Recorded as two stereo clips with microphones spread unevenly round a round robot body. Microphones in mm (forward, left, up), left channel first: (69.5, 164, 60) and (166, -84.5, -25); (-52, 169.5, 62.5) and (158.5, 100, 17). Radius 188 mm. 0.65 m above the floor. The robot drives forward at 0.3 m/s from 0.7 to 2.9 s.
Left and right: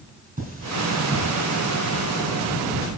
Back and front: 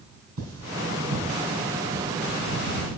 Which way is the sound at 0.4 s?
10° right.